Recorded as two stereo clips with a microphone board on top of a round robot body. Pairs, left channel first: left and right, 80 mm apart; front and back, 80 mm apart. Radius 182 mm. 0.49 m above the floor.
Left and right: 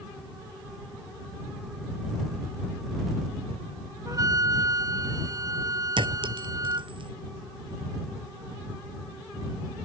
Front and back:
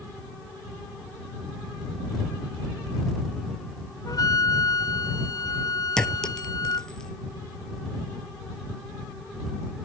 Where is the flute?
45° right.